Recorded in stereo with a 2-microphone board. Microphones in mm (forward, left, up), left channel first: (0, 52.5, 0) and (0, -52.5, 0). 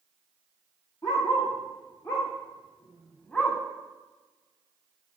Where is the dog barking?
45° left (ahead or behind), 4.5 m; by 3.6 s 10° left (ahead or behind), 3 m.